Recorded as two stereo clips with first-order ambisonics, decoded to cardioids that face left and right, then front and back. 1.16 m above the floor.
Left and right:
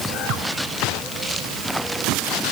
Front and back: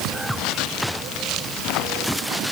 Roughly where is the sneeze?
I don't hear a sneeze.